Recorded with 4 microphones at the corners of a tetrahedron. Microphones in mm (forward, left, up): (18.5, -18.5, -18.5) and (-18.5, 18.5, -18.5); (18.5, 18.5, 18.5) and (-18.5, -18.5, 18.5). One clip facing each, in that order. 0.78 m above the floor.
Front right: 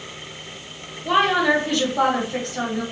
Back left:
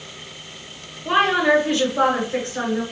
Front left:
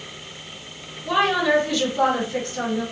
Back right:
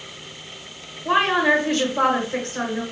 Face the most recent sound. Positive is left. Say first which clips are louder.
# back left 1 dB, back right 1 dB
turn(degrees=-160)